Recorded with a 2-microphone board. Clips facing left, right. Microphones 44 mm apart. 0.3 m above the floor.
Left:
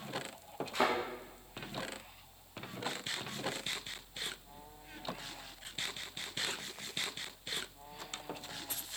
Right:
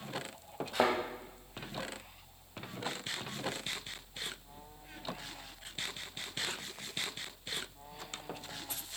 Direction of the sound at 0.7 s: 65° right (ahead or behind).